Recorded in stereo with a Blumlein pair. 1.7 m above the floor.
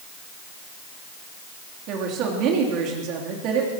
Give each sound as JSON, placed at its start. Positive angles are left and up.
{"t": 1.9, "sound": "a woman speaking", "azimuth_deg": -35, "distance_m": 3.5}